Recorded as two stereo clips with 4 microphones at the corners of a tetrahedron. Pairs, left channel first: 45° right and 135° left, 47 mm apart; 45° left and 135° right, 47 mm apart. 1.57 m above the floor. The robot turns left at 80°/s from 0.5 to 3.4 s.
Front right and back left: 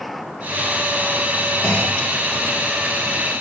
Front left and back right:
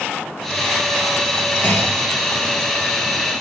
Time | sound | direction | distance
1.6 | a clunk | 5° left | 1.6 m